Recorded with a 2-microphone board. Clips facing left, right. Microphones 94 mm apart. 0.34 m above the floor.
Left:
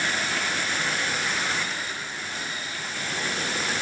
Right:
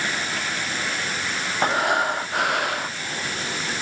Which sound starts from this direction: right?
Breathing, at 1.6 s.